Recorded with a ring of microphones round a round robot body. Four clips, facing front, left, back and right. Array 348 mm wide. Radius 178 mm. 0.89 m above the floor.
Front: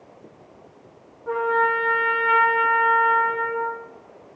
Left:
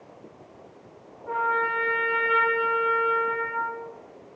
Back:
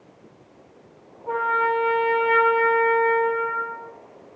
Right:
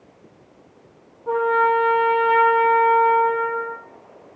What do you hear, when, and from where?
1.3 s a trumpet: 65° right, 8 m